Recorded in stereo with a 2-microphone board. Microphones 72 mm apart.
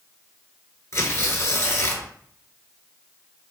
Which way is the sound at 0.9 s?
45° left (ahead or behind).